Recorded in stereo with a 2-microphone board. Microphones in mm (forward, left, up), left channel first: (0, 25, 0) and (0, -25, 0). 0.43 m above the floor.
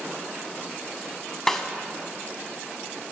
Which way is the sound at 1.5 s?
10° left (ahead or behind).